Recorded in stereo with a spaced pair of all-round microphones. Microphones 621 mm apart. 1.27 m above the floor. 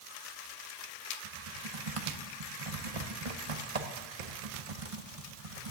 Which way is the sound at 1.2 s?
55° right (ahead or behind).